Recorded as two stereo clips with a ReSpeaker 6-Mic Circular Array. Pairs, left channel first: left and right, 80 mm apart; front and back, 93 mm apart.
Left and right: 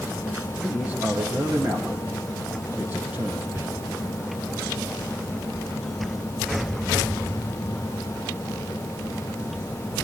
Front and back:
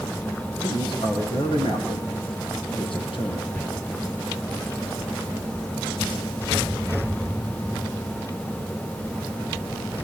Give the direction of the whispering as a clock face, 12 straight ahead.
2 o'clock.